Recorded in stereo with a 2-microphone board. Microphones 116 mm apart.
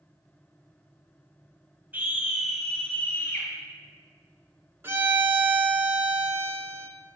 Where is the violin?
20° right (ahead or behind), 0.7 m.